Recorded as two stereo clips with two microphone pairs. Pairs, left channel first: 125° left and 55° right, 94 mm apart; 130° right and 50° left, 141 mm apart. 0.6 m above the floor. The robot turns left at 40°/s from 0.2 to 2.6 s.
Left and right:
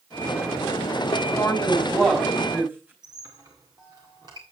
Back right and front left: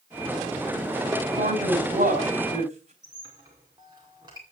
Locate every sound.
1.4 s a woman speaking: 60° left, 4.5 m; by 2.9 s 15° left, 4.5 m
3.0 s a squeak: 10° right, 4.5 m